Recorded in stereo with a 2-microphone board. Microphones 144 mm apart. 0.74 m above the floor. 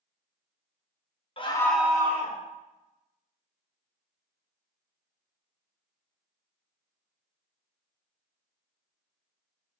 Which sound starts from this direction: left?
A scream, at 1.4 s.